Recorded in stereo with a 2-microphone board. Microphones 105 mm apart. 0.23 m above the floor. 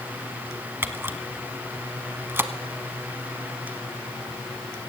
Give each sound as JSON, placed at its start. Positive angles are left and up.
{"t": 0.8, "sound": "a camera shutter", "side_deg": -20, "distance_m": 0.9}